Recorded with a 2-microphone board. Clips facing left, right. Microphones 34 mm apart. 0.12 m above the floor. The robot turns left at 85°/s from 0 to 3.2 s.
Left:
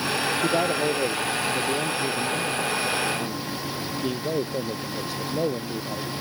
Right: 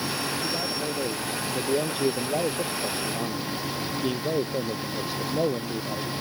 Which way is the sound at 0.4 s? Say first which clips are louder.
Left 7 dB; 75° left.